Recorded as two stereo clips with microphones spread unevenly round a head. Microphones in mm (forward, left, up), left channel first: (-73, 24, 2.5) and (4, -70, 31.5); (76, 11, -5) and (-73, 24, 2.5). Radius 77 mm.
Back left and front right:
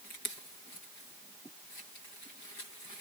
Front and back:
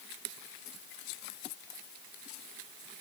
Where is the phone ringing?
I don't hear a phone ringing.